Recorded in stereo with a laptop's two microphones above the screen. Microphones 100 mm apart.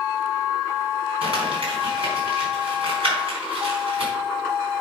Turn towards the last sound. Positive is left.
turn(degrees=-65)  # may be behind; listen again after turning